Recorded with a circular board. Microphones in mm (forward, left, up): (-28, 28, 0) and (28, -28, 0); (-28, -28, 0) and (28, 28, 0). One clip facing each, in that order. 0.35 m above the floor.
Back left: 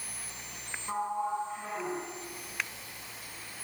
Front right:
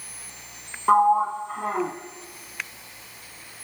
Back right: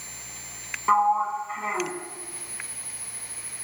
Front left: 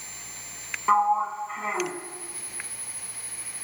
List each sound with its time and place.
0.9 s a sliding door: 45° right, 2 m